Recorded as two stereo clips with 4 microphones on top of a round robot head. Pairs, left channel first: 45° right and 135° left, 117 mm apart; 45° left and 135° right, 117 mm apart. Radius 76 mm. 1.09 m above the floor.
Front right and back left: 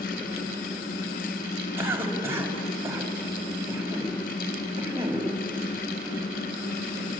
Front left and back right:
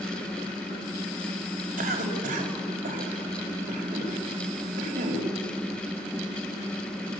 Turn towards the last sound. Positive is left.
turn(degrees=-150)